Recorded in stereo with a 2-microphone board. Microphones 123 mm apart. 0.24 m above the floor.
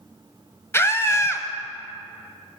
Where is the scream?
20° left (ahead or behind), 1.1 m.